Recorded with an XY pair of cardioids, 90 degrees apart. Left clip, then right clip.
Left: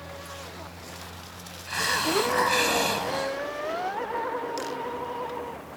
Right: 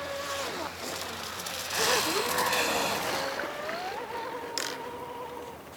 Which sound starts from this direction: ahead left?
A hiss, at 1.7 s.